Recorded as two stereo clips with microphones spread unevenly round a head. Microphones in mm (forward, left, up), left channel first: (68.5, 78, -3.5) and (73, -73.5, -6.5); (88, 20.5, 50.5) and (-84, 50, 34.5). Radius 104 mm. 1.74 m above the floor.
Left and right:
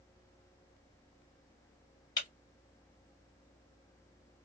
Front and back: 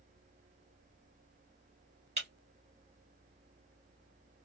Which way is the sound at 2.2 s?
140° left.